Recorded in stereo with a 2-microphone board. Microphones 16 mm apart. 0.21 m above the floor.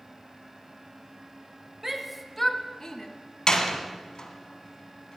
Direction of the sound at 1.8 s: 20° right (ahead or behind).